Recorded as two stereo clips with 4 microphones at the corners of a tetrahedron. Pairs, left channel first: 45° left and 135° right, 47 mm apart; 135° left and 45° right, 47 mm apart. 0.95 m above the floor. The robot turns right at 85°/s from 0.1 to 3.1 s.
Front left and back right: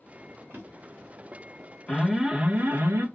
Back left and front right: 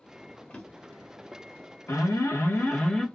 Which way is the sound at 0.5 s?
160° right.